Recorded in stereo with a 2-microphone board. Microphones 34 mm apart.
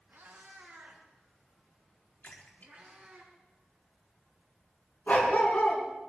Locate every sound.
0.1 s a cat meowing: 70° right (ahead or behind), 5 m; by 3.2 s 40° right (ahead or behind), 5 m
2.2 s a splash: 55° left (ahead or behind), 4 m
5.1 s a dog barking: 40° left (ahead or behind), 5.5 m